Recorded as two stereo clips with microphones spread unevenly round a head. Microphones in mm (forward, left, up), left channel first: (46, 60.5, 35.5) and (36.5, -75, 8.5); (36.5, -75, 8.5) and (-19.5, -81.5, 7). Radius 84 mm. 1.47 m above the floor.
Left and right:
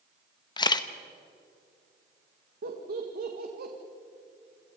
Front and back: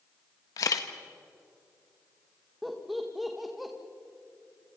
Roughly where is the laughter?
Right.